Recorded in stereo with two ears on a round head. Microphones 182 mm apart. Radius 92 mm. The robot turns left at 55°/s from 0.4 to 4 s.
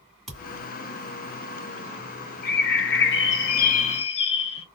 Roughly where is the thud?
Centre.